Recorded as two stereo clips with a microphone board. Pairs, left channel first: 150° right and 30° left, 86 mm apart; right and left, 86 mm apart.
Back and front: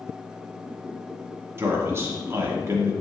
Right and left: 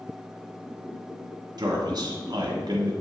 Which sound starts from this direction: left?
A man speaking, at 1.6 s.